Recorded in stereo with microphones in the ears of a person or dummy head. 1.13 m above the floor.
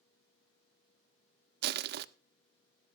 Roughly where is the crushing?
Right.